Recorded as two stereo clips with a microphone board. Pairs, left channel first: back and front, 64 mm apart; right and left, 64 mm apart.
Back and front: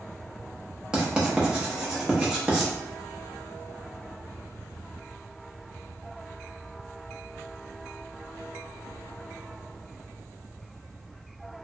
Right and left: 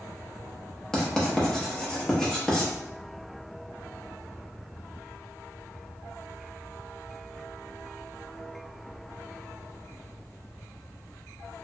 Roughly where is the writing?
Ahead right.